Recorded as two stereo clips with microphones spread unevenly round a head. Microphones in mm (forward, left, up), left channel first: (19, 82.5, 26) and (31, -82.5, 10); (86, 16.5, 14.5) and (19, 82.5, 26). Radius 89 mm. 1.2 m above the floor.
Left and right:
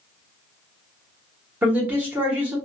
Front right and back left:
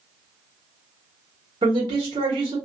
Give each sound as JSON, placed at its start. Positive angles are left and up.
{"t": 1.6, "sound": "a man speaking", "azimuth_deg": -165, "distance_m": 0.9}